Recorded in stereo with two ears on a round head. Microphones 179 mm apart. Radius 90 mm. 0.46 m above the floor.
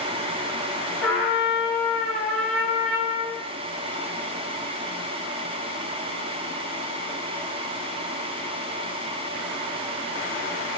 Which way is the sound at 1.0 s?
5° left (ahead or behind).